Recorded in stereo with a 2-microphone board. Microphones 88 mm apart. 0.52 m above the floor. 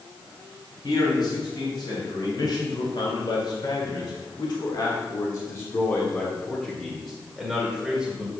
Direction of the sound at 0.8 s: 55° left (ahead or behind).